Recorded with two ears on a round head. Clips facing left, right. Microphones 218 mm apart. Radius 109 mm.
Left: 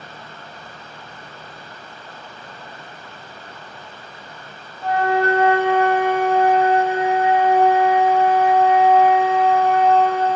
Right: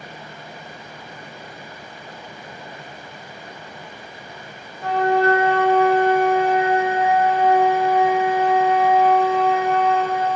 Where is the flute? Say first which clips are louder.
Right 1 dB; 50° right (ahead or behind), 1.6 m.